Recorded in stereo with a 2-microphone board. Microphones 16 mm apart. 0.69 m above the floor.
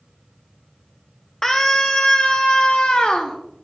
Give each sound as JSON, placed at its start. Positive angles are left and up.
{"t": 1.4, "sound": "a scream", "side_deg": 20, "distance_m": 0.7}